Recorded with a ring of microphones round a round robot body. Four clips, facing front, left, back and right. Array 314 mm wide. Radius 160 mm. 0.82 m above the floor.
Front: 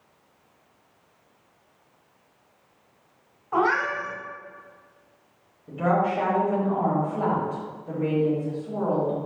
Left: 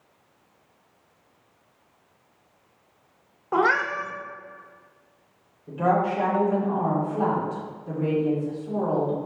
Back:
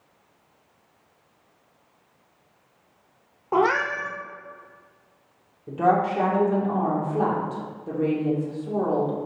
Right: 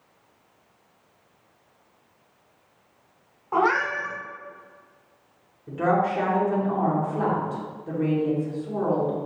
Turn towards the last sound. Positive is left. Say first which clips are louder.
# even, back 2 dB
turn(degrees=-155)